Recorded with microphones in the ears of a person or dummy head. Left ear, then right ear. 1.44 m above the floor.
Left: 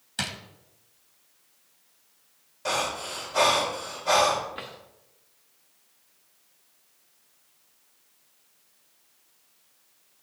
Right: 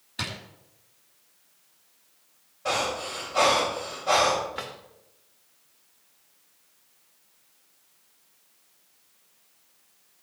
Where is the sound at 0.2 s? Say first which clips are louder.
Left 1 dB; 55° left (ahead or behind), 1.9 m.